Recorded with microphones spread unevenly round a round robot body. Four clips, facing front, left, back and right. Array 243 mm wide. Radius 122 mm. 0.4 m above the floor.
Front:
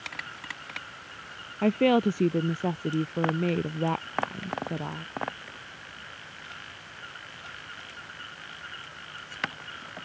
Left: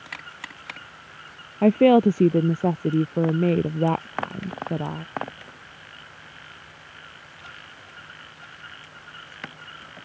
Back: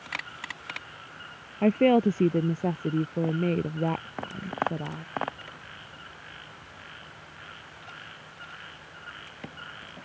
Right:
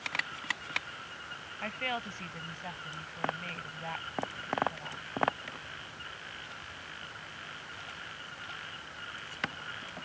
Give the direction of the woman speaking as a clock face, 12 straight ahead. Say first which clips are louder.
Left 23 dB, back 2 dB; 9 o'clock.